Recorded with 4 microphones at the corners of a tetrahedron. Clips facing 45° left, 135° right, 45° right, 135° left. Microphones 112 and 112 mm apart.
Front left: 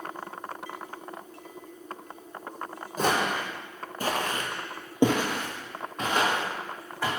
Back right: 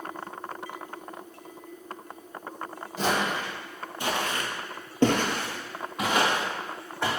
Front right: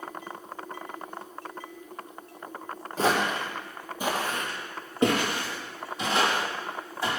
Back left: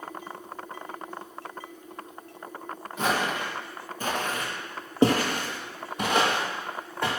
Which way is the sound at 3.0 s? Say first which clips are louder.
Front left 1 dB, front right 2 dB; 10° left.